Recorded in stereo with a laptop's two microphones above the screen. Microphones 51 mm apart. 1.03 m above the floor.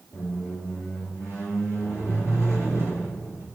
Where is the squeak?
75° left (ahead or behind), 2.5 m.